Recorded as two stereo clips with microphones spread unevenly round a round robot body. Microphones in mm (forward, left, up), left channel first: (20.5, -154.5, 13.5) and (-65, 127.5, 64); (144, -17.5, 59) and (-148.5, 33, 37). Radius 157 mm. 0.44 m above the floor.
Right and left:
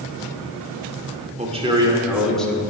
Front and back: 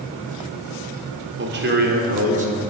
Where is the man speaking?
175° left, 1.6 m; by 2.6 s 140° right, 1.6 m.